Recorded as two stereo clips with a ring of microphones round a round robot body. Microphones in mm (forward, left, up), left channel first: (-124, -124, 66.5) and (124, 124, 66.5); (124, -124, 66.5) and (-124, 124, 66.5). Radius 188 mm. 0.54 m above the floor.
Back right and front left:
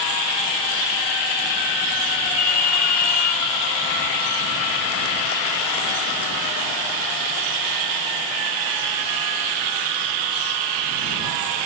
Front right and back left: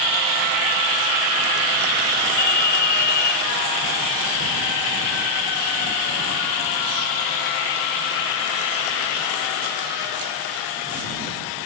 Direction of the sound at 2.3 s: 90° right.